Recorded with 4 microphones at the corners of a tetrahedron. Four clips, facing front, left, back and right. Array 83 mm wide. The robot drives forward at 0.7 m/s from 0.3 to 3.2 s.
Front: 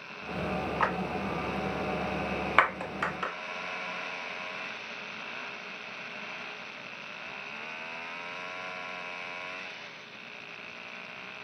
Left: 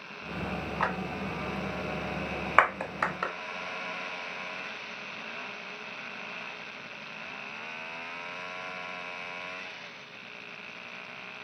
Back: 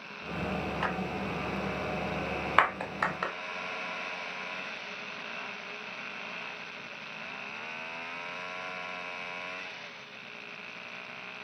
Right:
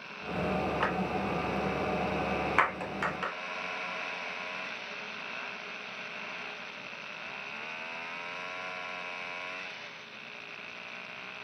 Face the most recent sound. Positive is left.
turn(degrees=135)